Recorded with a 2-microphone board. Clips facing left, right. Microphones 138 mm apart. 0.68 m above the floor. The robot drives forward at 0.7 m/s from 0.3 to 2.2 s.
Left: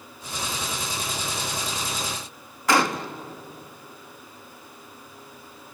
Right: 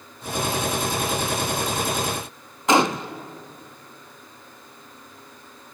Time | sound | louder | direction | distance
2.7 | a gunshot | right 3 dB | 20° right (ahead or behind) | 0.7 m